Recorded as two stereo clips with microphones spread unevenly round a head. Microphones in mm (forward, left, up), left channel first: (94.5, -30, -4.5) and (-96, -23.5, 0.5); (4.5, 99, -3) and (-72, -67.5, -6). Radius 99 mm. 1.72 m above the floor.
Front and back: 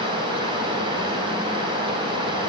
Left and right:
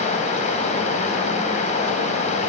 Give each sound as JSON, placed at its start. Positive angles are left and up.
{"t": 0.0, "sound": "running water", "azimuth_deg": 115, "distance_m": 3.5}